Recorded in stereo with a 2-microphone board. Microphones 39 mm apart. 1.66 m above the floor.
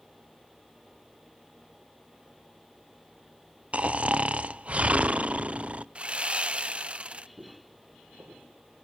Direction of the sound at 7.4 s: 55° right (ahead or behind).